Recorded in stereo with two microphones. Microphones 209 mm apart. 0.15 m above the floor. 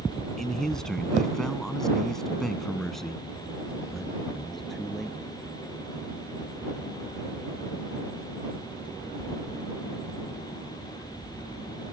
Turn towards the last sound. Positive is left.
turn(degrees=0)  # may be behind; listen again after turning